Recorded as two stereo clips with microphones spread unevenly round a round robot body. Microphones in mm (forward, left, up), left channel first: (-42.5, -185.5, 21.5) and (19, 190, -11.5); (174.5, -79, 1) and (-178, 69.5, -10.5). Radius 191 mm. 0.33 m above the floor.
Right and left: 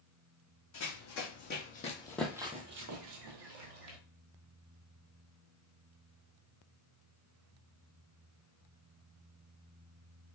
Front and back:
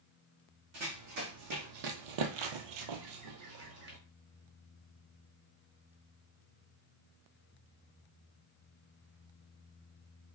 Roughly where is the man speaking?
No man speaking in this recording.